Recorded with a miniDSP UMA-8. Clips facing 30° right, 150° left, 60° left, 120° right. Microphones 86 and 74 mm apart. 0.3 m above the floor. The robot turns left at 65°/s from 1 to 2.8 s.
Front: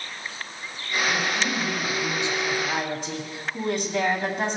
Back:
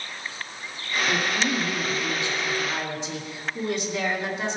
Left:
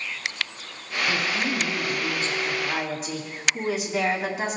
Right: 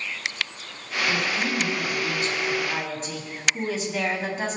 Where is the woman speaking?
90° left, 2 m; by 4.6 s 20° right, 2 m.